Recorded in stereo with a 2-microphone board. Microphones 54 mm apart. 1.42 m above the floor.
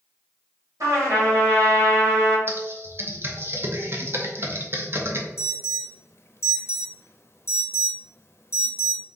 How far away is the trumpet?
About 1.7 m.